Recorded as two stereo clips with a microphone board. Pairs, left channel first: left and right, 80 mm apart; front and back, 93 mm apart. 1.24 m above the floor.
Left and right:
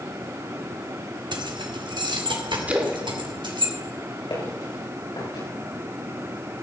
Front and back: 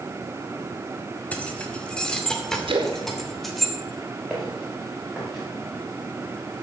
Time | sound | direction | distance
1.3 | keys jangling | 75° right | 1.8 m
2.7 | a splash | 160° right | 2.5 m
4.3 | footsteps | 95° left | 8.5 m